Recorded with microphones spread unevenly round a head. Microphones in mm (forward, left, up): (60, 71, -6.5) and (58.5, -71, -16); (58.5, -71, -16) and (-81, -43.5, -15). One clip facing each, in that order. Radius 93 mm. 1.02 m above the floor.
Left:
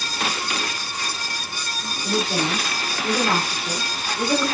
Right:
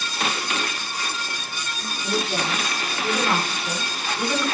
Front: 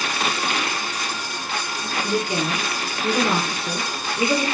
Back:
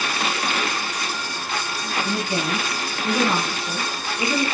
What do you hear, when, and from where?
2.0 s a woman speaking: straight ahead, 3.5 m; by 4.5 s 15° left, 4.5 m